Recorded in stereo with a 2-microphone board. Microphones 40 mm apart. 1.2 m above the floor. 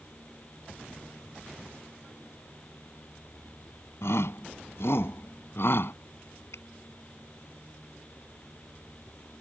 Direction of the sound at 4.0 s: 80° left.